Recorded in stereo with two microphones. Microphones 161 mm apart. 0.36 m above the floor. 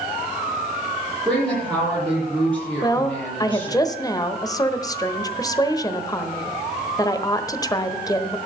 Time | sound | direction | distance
1.2 | a woman speaking | 10° left (ahead or behind) | 8 m
2.8 | a woman speaking | 25° left (ahead or behind) | 1.1 m